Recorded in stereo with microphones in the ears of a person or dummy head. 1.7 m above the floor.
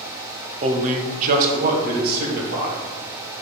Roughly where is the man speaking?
Right.